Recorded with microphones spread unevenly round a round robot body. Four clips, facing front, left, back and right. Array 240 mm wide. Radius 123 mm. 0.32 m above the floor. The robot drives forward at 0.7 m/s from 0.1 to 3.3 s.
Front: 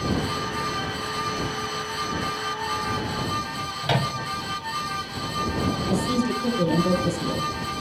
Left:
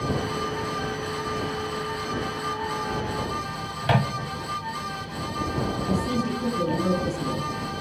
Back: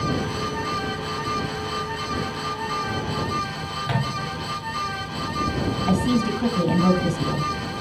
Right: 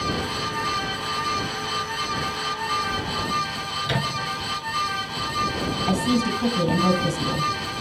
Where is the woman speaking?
155° right, 3 m.